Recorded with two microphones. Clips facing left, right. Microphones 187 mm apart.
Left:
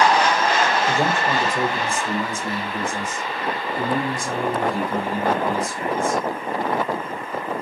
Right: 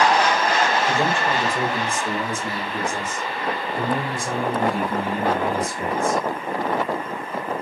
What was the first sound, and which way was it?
A man speaking, 10° left (ahead or behind).